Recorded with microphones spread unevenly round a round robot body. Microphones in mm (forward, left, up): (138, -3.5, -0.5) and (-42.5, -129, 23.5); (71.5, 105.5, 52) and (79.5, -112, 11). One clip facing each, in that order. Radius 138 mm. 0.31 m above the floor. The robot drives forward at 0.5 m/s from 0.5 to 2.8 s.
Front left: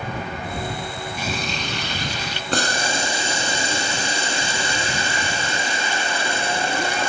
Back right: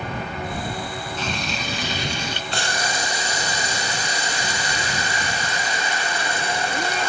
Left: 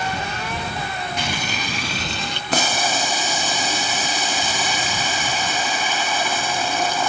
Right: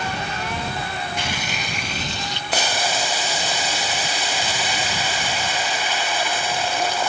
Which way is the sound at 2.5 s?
90° left.